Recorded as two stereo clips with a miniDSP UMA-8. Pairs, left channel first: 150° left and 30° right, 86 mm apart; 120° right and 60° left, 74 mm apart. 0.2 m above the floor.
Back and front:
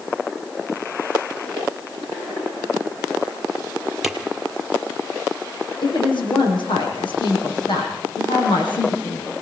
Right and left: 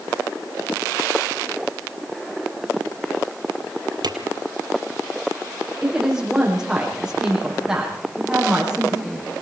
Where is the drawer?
55° left, 2.5 m.